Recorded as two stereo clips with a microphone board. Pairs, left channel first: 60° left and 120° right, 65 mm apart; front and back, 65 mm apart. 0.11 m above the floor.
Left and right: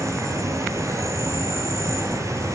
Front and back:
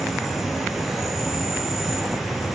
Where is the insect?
95° right, 4 m.